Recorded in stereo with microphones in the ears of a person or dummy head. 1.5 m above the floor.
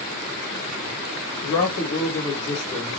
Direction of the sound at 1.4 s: 75° left (ahead or behind).